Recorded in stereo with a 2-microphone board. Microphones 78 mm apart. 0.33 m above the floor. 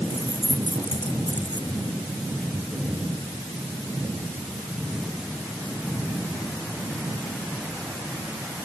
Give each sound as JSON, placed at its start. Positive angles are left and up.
{"t": 0.1, "sound": "keys jangling", "side_deg": 85}